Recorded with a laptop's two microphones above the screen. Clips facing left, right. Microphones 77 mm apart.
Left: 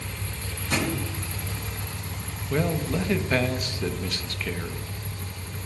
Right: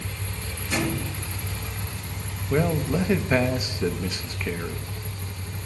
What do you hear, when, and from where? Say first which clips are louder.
0.7 s a thud: even; 55° left (ahead or behind), 5.5 m
2.5 s a man speaking: right 3 dB; 15° right (ahead or behind), 0.6 m